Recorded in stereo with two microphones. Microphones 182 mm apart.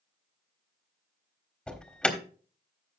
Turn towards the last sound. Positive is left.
turn(degrees=5)  # may be behind; listen again after turning